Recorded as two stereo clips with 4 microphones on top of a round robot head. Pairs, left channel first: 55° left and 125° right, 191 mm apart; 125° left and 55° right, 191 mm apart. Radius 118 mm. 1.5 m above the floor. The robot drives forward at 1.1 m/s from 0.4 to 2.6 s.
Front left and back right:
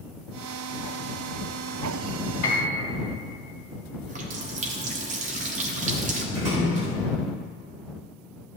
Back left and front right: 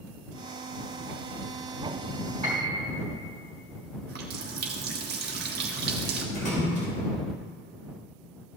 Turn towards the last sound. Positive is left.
turn(degrees=180)